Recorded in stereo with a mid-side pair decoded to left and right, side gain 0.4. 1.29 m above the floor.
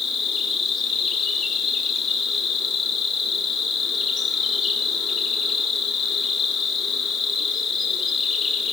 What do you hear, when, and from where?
0.0 s an insect: 60° left, 6.5 m